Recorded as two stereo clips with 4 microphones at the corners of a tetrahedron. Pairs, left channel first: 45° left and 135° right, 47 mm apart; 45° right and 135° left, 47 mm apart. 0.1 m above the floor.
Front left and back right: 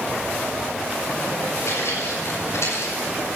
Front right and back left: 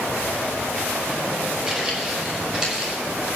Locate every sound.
1.7 s footsteps: 65° left, 8 m